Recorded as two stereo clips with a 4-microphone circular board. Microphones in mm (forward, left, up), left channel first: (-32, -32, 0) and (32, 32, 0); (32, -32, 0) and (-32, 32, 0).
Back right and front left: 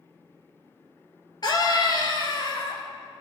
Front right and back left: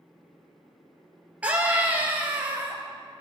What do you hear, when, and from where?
1.4 s a scream: 155° right, 2.5 m